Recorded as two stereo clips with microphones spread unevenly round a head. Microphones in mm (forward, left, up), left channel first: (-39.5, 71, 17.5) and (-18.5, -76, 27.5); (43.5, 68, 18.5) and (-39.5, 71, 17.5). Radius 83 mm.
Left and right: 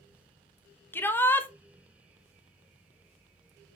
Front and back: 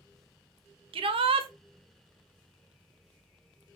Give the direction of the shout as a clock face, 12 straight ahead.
6 o'clock.